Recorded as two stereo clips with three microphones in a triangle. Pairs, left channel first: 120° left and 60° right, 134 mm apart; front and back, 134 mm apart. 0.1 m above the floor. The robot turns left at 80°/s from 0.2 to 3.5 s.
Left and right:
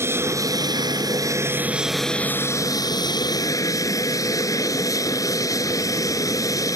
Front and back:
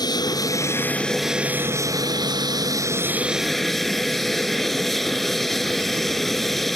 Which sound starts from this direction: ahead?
An aircraft, at 0.0 s.